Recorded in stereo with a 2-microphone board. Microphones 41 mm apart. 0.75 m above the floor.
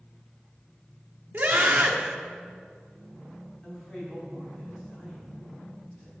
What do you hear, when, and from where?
1.3 s a scream: 45° right (ahead or behind), 1.8 m
3.6 s a man speaking: 20° left (ahead or behind), 4.5 m